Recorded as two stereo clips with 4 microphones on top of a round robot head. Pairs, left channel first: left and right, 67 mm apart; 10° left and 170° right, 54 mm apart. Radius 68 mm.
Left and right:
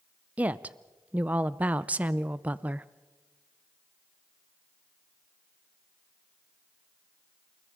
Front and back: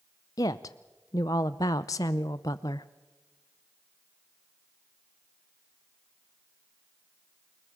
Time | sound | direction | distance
0.4 | a woman speaking | 25° right | 0.6 m